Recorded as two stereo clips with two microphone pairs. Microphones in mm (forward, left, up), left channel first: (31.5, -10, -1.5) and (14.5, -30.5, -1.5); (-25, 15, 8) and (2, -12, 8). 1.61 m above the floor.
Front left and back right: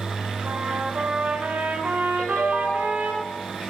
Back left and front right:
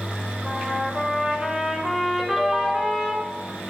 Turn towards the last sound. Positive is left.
turn(degrees=30)